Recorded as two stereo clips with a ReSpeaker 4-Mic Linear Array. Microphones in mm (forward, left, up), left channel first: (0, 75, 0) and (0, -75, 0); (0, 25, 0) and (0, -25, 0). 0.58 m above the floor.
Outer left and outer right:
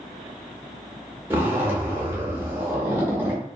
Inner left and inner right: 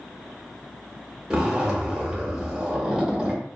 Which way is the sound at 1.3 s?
15° right (ahead or behind).